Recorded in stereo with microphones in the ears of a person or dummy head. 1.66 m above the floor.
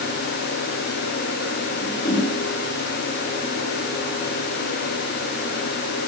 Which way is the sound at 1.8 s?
65° left (ahead or behind).